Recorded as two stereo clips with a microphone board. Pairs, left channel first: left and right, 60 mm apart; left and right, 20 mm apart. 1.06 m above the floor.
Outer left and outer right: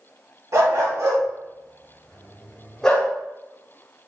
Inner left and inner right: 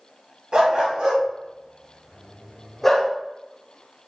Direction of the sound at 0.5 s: 60° right (ahead or behind).